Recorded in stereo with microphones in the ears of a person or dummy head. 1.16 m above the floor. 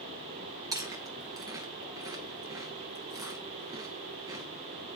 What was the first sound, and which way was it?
Chewing, 20° right (ahead or behind).